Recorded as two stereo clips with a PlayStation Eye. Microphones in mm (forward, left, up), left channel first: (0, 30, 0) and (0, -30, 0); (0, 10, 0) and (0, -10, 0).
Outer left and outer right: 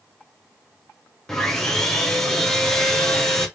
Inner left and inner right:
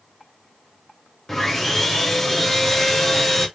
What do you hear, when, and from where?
1.3 s sawing: 10° left (ahead or behind), 0.8 m